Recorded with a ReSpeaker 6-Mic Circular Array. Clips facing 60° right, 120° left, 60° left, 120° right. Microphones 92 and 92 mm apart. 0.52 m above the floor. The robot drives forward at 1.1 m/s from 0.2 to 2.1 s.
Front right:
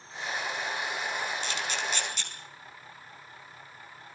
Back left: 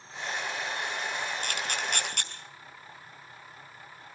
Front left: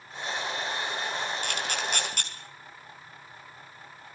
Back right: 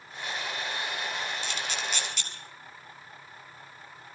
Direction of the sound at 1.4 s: 85° left.